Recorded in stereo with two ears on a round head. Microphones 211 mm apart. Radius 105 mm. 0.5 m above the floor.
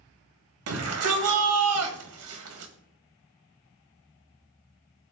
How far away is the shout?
About 2 m.